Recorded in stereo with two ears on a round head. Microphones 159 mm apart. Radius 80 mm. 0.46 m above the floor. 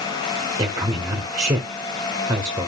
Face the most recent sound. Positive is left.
turn(degrees=-20)  # may be behind; listen again after turning